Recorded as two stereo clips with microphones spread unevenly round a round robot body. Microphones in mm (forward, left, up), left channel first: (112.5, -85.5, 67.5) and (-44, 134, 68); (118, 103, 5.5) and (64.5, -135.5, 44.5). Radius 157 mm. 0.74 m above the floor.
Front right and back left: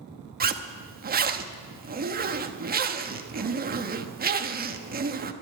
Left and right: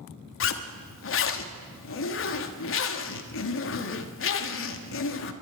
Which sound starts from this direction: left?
A zipper, at 0.4 s.